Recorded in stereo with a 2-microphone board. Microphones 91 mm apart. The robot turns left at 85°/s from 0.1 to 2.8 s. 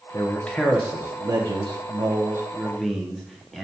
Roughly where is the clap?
I don't hear a clap.